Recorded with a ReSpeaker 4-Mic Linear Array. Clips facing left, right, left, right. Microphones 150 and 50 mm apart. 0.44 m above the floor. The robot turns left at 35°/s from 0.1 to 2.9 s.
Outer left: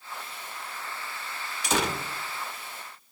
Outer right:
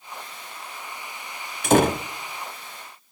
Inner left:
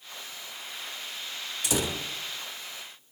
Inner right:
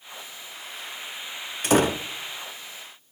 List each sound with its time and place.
1.6 s a door slam: 50° right (ahead or behind), 0.7 m